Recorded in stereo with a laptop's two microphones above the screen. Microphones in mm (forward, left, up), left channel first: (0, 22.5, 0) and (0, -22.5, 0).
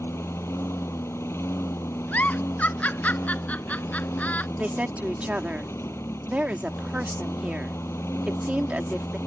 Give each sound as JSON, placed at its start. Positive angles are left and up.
{"t": 0.0, "sound": "a lawn mower", "side_deg": 70}
{"t": 2.1, "sound": "a giggle", "side_deg": 35}
{"t": 4.6, "sound": "a woman speaking", "side_deg": -30}